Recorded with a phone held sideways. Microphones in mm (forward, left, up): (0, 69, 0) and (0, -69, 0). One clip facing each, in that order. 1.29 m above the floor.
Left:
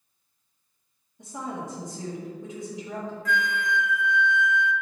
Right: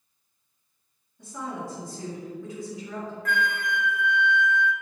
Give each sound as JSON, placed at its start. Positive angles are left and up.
{"t": 1.2, "sound": "a woman speaking", "side_deg": 20, "distance_m": 2.0}
{"t": 3.2, "sound": "a flute", "side_deg": -55, "distance_m": 0.6}